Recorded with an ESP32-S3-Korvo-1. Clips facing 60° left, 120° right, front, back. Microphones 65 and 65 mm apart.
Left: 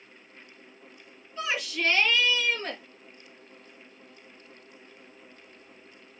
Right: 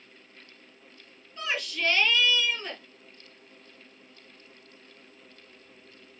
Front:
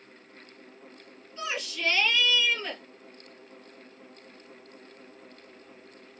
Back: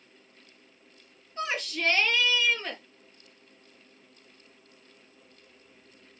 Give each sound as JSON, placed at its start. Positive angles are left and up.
{"t": 1.4, "sound": "a shout", "azimuth_deg": 140, "distance_m": 4.0}